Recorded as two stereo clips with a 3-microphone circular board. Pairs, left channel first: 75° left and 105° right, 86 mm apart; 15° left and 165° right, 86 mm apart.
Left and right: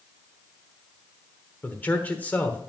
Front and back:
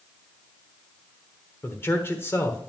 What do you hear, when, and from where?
1.6 s a man speaking: 30° left, 1.0 m